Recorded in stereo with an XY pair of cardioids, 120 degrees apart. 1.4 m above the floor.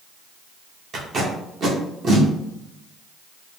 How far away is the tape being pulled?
About 1.4 m.